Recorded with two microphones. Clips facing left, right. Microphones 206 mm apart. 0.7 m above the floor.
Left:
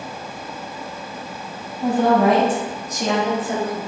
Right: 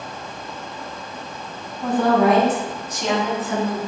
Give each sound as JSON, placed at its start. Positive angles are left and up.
{"t": 1.8, "sound": "a woman speaking", "side_deg": 20, "distance_m": 3.5}